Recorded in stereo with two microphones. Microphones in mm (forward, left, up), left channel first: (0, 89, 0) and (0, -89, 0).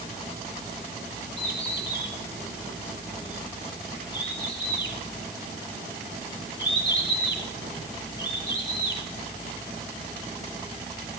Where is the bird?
80° left, 8.5 m.